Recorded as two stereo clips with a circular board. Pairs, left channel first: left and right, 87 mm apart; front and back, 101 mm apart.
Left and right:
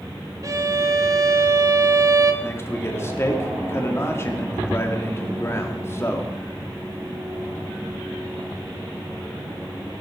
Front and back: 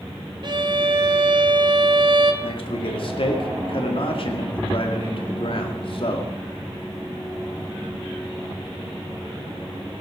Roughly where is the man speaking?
Ahead left.